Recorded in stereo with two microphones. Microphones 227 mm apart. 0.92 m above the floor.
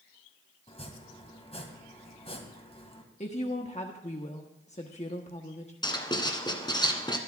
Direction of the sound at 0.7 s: 25° left (ahead or behind).